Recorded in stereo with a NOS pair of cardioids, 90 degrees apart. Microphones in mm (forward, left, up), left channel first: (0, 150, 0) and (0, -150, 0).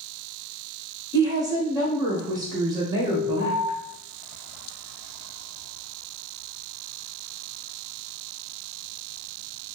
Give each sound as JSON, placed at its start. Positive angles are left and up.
{"t": 1.1, "sound": "a woman speaking", "azimuth_deg": -10, "distance_m": 1.6}
{"t": 3.1, "sound": "an alarm", "azimuth_deg": 25, "distance_m": 1.6}